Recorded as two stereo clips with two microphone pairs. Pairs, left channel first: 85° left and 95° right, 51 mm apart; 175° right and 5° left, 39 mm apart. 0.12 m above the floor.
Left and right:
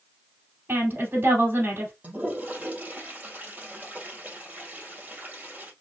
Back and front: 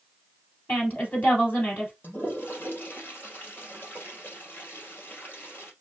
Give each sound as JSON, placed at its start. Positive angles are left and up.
{"t": 0.7, "sound": "a woman speaking", "azimuth_deg": -140, "distance_m": 2.5}
{"t": 2.0, "sound": "a toilet flushing", "azimuth_deg": -150, "distance_m": 2.0}